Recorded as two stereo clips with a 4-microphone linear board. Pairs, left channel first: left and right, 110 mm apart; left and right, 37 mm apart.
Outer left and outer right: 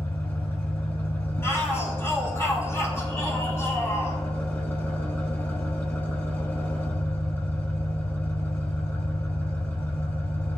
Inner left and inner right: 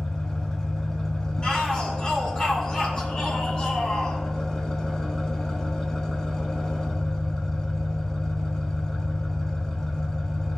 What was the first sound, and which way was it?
An engine running, 20° left (ahead or behind).